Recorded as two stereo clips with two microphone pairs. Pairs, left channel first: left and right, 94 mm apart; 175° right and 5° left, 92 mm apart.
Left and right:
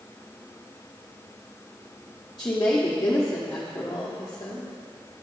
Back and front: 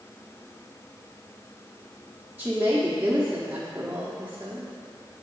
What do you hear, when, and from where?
2.4 s a woman speaking: 60° left, 0.9 m